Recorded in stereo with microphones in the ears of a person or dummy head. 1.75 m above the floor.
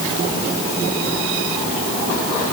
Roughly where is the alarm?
No alarm in this recording.